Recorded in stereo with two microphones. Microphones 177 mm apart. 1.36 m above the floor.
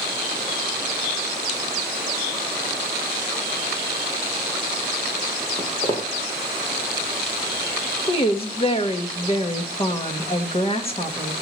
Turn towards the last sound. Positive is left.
turn(degrees=35)  # may be behind; listen again after turning